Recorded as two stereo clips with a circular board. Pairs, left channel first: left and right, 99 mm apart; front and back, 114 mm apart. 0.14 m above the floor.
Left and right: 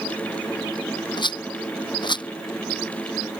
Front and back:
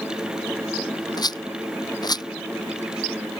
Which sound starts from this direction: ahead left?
A rattle, at 1.2 s.